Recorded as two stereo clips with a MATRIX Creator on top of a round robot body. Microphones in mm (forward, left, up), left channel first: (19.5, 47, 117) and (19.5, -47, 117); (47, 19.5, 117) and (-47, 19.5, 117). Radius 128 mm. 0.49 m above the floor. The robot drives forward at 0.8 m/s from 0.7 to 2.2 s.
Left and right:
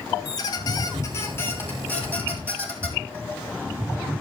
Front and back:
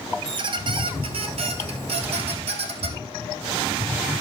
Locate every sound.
0.2 s a squeak: 145° left, 0.9 m; by 3.0 s 165° left, 1.9 m